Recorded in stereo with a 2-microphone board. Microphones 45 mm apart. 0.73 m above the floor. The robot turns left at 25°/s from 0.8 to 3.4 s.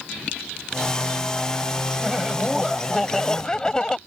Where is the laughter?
160° right; by 4.0 s 165° left.